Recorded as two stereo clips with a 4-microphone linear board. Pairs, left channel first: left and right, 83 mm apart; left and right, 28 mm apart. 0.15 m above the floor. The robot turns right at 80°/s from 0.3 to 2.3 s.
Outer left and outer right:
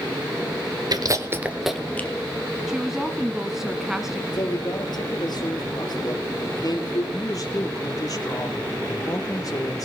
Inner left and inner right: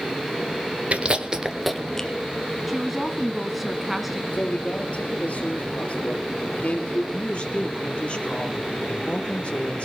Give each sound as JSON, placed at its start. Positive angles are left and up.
{"t": 0.9, "sound": "chewing", "side_deg": -50, "distance_m": 1.8}
{"t": 2.7, "sound": "a woman speaking", "side_deg": -5, "distance_m": 1.4}
{"t": 4.3, "sound": "a man speaking", "side_deg": 55, "distance_m": 3.5}
{"t": 7.1, "sound": "a woman speaking", "side_deg": 45, "distance_m": 3.5}